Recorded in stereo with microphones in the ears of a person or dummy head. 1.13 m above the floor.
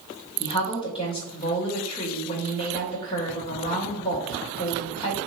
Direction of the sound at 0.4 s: 25° left (ahead or behind).